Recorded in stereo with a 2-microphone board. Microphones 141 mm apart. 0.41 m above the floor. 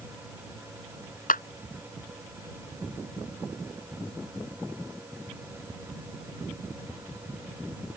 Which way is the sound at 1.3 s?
80° left.